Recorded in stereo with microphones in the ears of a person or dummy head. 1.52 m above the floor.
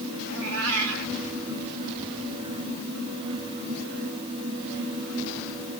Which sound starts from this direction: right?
A cat meowing, at 0.3 s.